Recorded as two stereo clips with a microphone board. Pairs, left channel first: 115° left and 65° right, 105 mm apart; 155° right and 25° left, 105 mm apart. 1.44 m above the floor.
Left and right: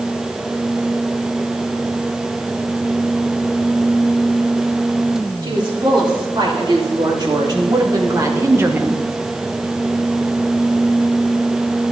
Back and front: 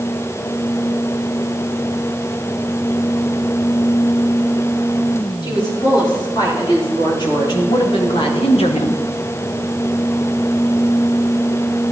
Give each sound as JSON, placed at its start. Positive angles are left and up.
{"t": 5.4, "sound": "a woman speaking", "azimuth_deg": -110, "distance_m": 5.5}